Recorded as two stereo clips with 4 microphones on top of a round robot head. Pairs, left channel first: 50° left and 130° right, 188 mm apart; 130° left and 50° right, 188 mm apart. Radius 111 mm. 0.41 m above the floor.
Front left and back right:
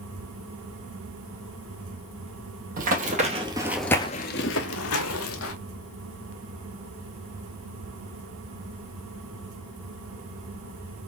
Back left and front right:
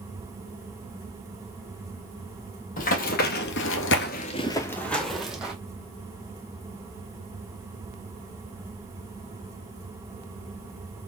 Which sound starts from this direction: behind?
Running footsteps, at 2.8 s.